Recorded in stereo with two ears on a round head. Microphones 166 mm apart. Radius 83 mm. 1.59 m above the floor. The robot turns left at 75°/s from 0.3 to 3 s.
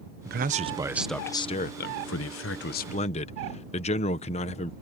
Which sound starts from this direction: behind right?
A man speaking, at 0.2 s.